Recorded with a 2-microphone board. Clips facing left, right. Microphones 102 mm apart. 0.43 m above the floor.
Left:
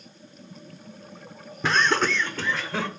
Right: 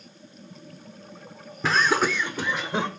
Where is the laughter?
Centre (ahead or behind), 0.8 m; by 2.9 s 20° right (ahead or behind), 1.2 m.